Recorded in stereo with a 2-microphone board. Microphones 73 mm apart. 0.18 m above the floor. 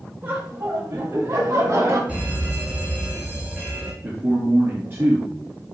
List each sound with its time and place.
0.2 s laughter: 30° right (ahead or behind), 4.5 m; by 2.0 s 40° right (ahead or behind), 6.5 m
2.1 s an alarm: 20° right (ahead or behind), 5 m
4.0 s a man speaking: 30° right (ahead or behind), 3.5 m